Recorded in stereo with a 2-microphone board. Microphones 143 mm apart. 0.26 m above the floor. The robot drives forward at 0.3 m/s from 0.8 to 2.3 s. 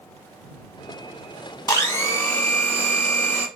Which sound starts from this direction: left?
A blender, at 1.7 s.